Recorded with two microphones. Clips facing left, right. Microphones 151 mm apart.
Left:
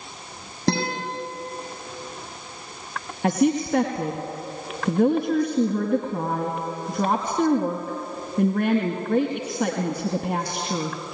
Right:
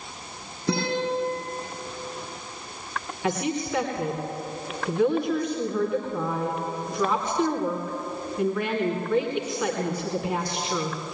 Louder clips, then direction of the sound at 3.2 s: Left 7 dB; 50° left (ahead or behind).